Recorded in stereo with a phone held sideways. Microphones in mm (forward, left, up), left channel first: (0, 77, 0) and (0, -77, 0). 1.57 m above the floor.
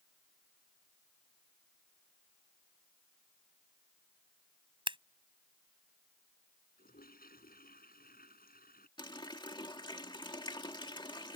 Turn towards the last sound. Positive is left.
turn(degrees=30)  # may be behind; listen again after turning